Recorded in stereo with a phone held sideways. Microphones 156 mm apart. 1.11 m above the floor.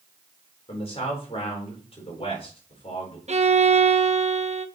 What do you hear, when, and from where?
0.7 s a man speaking: 40° left (ahead or behind), 4.5 m
3.3 s a violin: 50° right (ahead or behind), 0.8 m